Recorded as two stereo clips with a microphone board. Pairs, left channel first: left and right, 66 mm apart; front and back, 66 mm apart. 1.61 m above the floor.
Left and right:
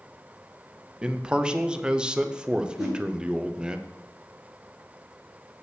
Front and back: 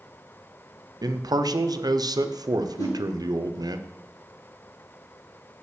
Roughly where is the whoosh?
Ahead.